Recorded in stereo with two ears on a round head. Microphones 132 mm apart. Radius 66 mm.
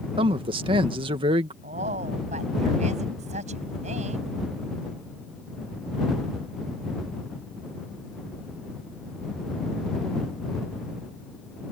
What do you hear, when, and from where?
0.2 s a man speaking: 35° right (ahead or behind)
1.6 s a woman speaking: 50° right (ahead or behind)